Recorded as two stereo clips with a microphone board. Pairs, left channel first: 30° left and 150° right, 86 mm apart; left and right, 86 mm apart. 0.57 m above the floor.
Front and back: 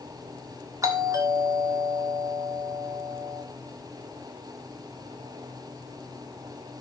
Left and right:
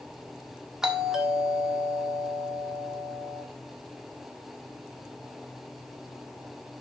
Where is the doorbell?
170° right, 1.6 m.